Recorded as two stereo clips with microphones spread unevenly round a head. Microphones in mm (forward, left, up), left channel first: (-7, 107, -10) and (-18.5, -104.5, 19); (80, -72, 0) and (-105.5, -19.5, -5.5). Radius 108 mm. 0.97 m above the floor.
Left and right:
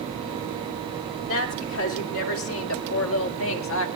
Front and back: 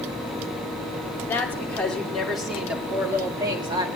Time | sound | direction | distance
1.3 | a woman speaking | 65° left | 2.5 m